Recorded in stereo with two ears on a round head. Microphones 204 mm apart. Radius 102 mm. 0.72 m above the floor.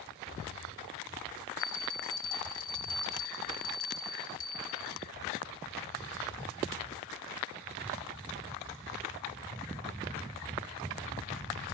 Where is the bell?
40° left (ahead or behind), 1.8 m.